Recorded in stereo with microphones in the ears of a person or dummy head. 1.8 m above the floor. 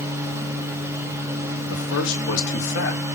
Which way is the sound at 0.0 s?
15° right (ahead or behind).